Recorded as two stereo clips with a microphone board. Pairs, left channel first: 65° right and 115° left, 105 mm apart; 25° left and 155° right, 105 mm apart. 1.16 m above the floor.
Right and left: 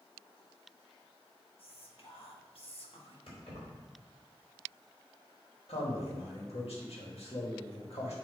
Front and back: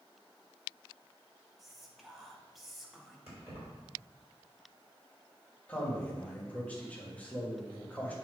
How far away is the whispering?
About 1.1 m.